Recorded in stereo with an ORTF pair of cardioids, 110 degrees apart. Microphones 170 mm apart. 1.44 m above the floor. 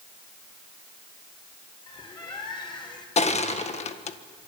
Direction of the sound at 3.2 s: 40° left.